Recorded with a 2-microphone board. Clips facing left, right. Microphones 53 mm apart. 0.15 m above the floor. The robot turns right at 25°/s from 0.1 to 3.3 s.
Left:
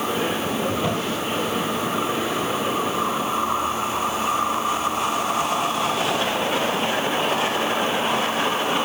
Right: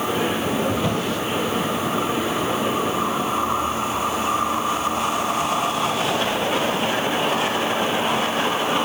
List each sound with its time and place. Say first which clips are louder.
0.7 s a drawer: right 1 dB; 5° left (ahead or behind), 6 m; by 1.2 s 5° right (ahead or behind), 6 m